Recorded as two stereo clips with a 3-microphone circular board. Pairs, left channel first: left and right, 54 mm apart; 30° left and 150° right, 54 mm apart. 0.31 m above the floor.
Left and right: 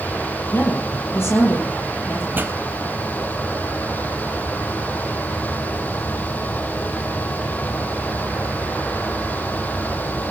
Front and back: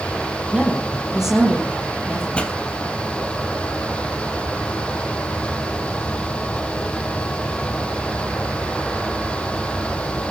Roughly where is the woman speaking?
Behind left.